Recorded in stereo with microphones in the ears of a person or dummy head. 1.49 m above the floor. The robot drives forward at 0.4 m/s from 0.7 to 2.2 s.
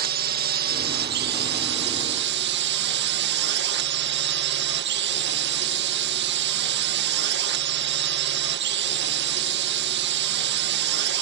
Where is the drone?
50° right (ahead or behind); by 11.2 s 55° right (ahead or behind).